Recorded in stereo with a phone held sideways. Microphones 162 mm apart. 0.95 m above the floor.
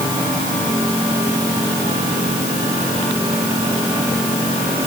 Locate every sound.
Only background noise.